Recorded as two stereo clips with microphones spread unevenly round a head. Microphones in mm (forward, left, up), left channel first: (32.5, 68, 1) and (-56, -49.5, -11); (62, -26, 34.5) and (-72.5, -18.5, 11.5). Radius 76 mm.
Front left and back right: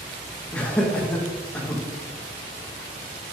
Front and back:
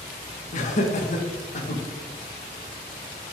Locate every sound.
0.5 s laughter: 30° right, 1.4 m